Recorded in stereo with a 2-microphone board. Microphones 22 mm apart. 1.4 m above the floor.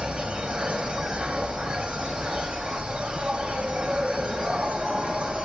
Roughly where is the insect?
Right.